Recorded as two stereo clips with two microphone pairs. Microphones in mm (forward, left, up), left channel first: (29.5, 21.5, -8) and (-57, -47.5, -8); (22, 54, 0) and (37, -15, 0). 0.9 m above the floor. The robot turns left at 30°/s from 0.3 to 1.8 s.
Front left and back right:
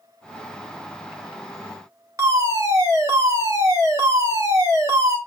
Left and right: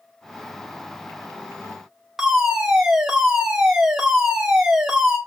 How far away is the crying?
I don't hear crying.